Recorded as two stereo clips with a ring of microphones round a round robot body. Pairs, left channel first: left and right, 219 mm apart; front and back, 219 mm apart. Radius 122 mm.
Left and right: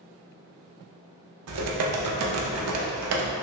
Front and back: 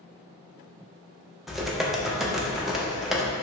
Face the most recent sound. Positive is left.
turn(degrees=-90)